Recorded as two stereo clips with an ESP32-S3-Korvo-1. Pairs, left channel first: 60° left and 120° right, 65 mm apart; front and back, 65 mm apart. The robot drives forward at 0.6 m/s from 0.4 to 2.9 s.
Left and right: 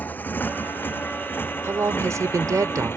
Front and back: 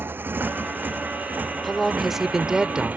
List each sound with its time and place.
0.0 s a motorcycle: 125° left; by 3.0 s 115° left
1.6 s a woman speaking: 85° right; by 3.0 s 110° right